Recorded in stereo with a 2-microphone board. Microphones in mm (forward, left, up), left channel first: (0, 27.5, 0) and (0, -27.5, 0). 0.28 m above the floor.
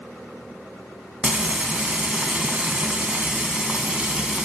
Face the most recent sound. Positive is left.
turn(degrees=-20)  # may be behind; listen again after turning